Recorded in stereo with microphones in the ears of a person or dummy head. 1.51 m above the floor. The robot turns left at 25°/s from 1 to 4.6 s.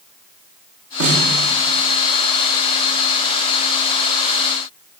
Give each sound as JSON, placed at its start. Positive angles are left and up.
{"t": 1.0, "sound": "a snare drum", "side_deg": -80, "distance_m": 2.5}